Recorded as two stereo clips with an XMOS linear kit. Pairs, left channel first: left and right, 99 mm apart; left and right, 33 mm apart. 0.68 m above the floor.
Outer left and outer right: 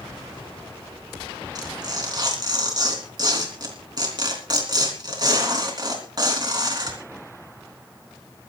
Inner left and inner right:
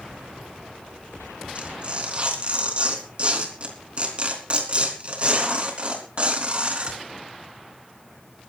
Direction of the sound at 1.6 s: 40° right (ahead or behind).